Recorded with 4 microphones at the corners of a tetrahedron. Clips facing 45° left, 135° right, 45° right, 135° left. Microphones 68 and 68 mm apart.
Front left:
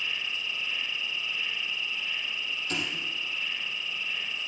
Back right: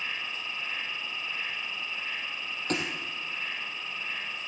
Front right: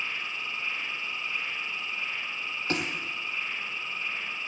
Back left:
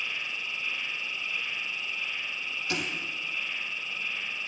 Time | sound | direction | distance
0.0 | an insect | 95° right | 1.2 m
2.7 | a thud | 95° right | 2.5 m